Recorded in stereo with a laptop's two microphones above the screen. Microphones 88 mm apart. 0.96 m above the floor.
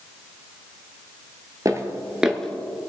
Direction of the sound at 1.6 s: 40° right (ahead or behind).